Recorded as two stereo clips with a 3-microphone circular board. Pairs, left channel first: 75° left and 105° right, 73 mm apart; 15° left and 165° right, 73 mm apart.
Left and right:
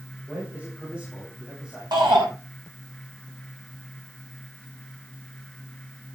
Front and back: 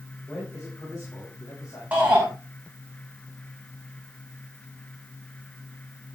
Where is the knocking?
No knocking in this recording.